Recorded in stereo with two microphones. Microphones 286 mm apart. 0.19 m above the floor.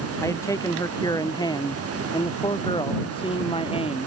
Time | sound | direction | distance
0.2 | a man speaking | 10° left (ahead or behind) | ?